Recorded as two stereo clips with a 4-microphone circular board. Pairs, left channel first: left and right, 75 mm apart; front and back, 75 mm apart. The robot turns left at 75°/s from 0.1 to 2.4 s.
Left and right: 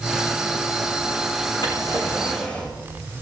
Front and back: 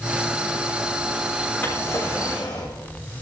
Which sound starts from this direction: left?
A drawer, at 1.6 s.